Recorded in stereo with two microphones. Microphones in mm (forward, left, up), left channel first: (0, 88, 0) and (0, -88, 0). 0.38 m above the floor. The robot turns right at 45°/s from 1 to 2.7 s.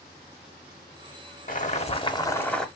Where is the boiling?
125° left, 0.9 m; by 2.7 s 175° left, 0.9 m.